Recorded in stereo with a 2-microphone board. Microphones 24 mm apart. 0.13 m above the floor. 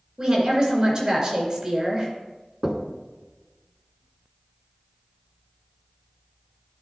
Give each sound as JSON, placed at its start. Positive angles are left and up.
{"t": 0.2, "sound": "a woman speaking", "side_deg": -30, "distance_m": 2.0}
{"t": 2.6, "sound": "knocking", "side_deg": -15, "distance_m": 0.8}